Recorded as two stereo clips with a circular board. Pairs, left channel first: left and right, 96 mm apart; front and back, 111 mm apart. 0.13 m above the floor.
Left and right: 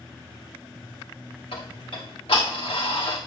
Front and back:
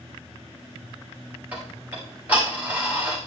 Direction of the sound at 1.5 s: 105° left.